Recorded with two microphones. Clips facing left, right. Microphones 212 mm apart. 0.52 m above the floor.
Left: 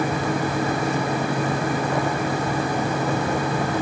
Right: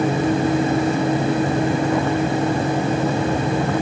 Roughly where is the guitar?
I don't hear a guitar.